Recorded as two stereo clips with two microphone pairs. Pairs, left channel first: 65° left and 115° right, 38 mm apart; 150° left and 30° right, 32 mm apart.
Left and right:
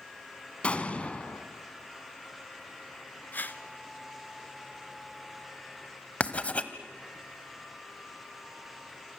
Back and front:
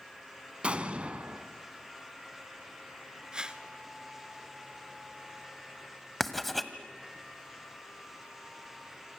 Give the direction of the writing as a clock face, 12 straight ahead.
10 o'clock.